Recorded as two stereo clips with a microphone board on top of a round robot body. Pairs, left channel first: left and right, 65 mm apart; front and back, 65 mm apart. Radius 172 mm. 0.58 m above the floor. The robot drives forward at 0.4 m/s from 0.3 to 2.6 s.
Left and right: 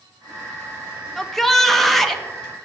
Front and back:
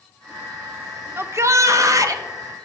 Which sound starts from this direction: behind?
A shout, at 1.2 s.